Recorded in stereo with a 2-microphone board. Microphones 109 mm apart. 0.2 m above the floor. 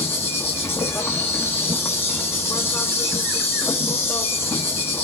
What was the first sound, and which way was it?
An insect, 20° left (ahead or behind).